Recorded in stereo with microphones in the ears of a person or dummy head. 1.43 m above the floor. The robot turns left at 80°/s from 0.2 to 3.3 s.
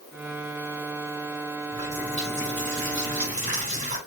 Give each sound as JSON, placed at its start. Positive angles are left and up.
{"t": 1.7, "sound": "a running tap", "azimuth_deg": -15, "distance_m": 2.5}